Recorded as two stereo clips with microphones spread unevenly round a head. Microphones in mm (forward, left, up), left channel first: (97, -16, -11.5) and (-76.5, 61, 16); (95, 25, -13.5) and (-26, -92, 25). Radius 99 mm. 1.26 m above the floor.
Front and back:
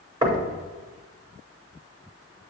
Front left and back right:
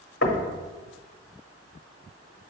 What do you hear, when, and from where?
0.2 s knocking: 85° left, 1.1 m